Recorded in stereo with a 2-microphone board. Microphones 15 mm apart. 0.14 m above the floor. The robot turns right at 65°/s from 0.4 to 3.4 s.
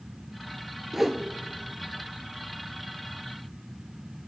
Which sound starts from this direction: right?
A whoosh, at 0.9 s.